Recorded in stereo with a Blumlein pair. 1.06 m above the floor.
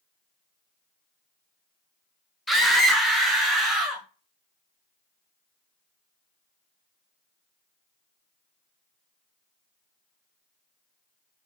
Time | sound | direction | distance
2.5 | a scream | straight ahead | 0.9 m